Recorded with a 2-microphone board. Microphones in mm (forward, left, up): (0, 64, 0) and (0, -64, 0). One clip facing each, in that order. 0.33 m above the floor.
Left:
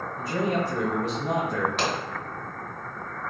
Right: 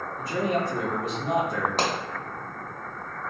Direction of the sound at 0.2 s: 5° left (ahead or behind).